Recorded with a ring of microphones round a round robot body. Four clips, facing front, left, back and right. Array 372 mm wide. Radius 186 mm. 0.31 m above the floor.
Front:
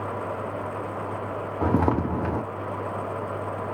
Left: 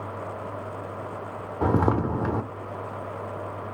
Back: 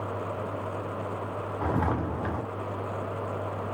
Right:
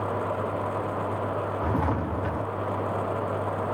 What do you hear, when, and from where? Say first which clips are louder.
1.6 s footsteps: left 8 dB, front 6 dB; 45° left, 1.1 m